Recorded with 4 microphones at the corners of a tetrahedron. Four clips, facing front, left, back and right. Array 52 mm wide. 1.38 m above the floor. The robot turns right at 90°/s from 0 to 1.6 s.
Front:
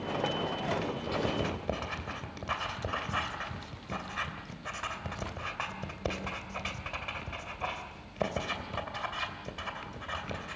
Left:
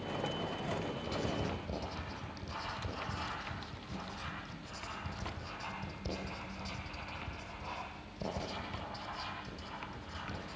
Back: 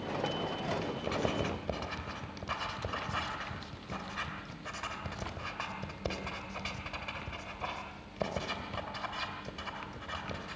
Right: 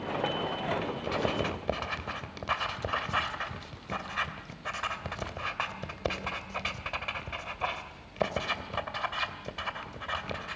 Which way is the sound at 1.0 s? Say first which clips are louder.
Right 8 dB, even; 130° right.